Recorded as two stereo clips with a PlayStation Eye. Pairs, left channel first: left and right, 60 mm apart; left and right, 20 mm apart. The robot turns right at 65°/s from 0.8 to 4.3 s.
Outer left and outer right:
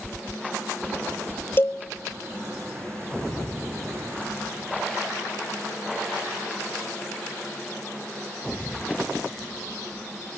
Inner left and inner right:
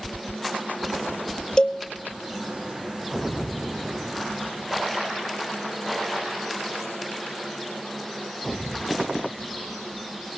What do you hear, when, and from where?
1.6 s a cowbell: 40° left (ahead or behind), 1.0 m; by 1.8 s 55° left (ahead or behind), 1.0 m